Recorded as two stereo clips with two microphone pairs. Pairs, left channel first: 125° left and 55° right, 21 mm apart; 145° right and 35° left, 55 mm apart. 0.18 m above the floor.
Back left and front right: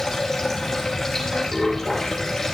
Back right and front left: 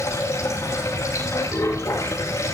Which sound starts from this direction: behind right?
Running water, at 0.0 s.